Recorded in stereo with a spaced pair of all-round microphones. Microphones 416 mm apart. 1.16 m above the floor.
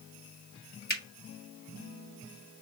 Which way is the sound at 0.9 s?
25° left (ahead or behind).